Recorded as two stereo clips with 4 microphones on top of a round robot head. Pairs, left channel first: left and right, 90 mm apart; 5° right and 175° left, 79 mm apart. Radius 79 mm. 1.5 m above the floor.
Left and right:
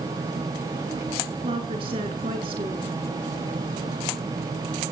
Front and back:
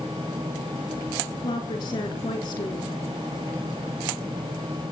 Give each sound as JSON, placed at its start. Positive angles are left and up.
{"t": 1.4, "sound": "a woman speaking", "azimuth_deg": -50, "distance_m": 4.0}